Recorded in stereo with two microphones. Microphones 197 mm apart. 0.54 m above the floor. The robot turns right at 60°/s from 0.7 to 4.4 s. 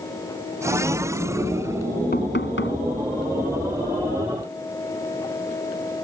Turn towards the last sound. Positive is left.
turn(degrees=-170)